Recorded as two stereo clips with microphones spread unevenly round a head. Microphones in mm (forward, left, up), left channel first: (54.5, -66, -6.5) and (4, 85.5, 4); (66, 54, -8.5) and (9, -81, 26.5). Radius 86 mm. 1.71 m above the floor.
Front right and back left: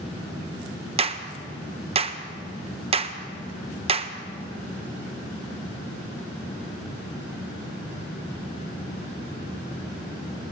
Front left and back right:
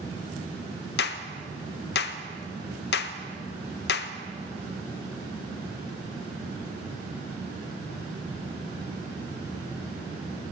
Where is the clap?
60° left, 1.2 m.